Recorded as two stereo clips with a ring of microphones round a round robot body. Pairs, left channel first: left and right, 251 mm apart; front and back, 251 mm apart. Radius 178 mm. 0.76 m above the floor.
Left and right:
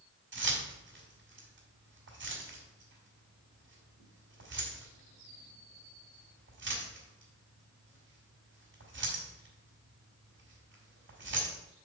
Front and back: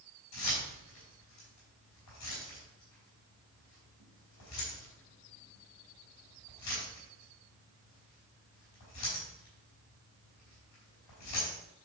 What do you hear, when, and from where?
0.3 s keys jangling: 45° right, 4 m